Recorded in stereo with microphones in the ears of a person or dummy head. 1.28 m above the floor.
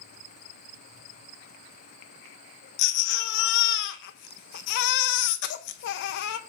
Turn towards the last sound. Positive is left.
turn(degrees=70)  # may be behind; listen again after turning